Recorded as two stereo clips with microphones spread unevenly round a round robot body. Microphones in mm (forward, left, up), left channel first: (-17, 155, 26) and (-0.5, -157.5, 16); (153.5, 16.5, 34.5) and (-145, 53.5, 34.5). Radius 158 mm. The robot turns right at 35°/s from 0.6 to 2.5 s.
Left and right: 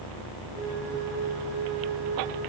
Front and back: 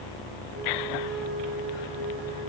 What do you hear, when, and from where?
Only background noise.